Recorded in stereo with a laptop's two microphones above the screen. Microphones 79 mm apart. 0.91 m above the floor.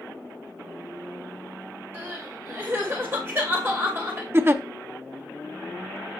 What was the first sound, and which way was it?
Crying, 30° right (ahead or behind).